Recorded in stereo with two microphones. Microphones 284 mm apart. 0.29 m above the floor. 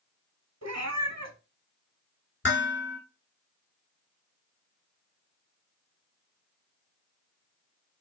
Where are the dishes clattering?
45° left (ahead or behind), 2 m.